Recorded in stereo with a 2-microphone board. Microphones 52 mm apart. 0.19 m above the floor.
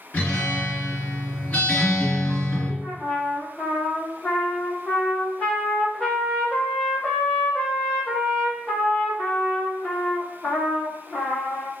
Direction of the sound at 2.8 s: 20° left (ahead or behind).